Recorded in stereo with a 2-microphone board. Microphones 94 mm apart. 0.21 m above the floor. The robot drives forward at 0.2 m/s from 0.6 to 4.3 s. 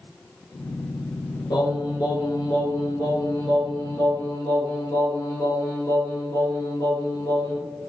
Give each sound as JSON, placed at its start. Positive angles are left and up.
{"t": 1.5, "sound": "singing", "side_deg": 50, "distance_m": 0.8}